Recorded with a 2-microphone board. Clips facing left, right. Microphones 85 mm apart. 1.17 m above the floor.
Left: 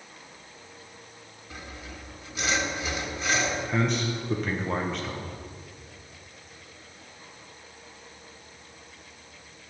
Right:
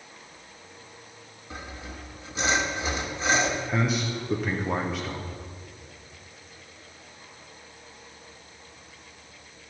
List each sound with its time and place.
1.5 s sawing: 30° right (ahead or behind), 1.1 m
3.7 s a man speaking: 5° right (ahead or behind), 0.6 m